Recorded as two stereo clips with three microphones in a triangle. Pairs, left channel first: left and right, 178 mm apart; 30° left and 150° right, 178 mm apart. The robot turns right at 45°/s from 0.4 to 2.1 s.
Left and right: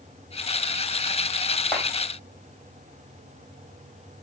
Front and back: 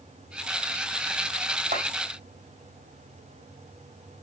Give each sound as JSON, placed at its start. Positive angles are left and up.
{"t": 1.7, "sound": "a clap", "azimuth_deg": -175, "distance_m": 3.5}